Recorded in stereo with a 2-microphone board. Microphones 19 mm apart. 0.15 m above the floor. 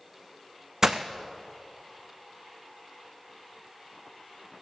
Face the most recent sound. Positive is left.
turn(degrees=-35)  # may be behind; listen again after turning